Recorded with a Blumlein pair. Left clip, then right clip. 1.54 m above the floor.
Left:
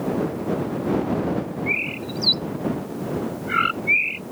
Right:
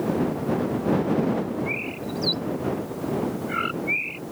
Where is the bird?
70° left.